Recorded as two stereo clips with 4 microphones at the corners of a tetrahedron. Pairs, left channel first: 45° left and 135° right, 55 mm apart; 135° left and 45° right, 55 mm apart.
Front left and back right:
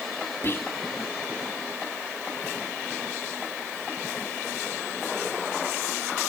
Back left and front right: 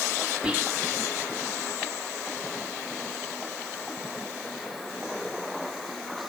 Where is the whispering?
25° left, 1.8 m.